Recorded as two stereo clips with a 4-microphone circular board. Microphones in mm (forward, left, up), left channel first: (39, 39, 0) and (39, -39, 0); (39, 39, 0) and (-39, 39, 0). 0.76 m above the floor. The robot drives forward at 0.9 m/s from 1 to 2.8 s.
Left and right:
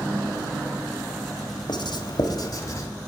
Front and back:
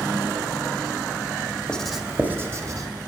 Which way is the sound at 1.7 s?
80° left.